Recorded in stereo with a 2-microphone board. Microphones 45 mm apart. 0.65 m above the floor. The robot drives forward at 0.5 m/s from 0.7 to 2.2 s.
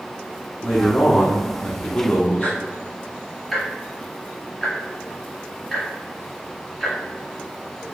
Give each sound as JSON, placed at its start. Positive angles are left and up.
{"t": 0.6, "sound": "a man speaking", "side_deg": 20, "distance_m": 0.9}
{"t": 2.4, "sound": "ticking", "side_deg": 10, "distance_m": 1.3}